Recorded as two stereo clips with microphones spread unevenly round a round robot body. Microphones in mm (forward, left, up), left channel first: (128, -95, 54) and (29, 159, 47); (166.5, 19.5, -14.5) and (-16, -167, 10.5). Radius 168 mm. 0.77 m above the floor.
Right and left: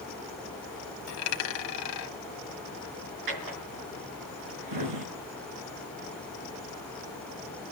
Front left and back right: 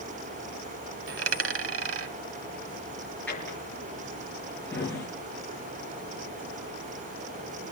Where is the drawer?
130° left, 5 m.